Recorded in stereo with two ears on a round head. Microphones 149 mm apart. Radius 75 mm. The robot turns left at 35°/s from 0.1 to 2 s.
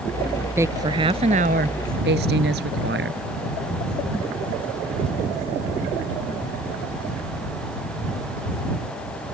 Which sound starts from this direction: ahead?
A woman speaking, at 0.6 s.